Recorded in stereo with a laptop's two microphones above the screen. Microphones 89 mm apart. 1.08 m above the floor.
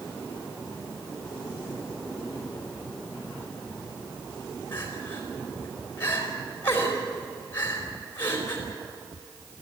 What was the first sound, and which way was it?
Crying, 25° left (ahead or behind).